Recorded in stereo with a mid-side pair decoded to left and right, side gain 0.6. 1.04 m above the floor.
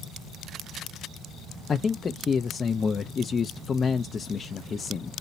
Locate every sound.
1.7 s a man speaking: 30° left, 0.5 m